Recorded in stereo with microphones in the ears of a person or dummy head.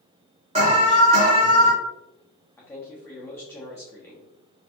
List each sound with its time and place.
0.6 s an alarm: 30° right (ahead or behind), 0.9 m
2.6 s a man speaking: 10° left (ahead or behind), 0.8 m